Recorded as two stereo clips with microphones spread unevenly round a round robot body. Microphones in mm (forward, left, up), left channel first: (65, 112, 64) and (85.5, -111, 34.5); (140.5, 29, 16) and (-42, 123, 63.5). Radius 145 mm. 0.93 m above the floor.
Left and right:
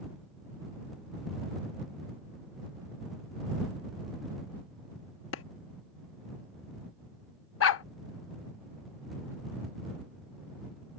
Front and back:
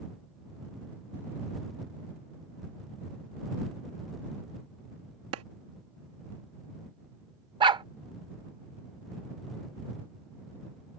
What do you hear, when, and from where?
5.3 s a clap: 140° left
7.6 s a dog barking: 100° left